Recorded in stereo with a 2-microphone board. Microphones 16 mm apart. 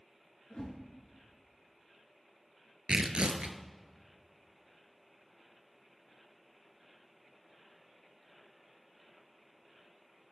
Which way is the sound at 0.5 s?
60° left (ahead or behind).